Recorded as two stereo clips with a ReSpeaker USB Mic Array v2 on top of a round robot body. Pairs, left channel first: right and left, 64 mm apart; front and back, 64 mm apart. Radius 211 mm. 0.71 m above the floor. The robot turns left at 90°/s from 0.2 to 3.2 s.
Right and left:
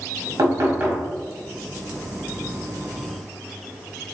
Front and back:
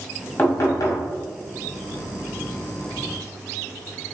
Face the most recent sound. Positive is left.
turn(degrees=175)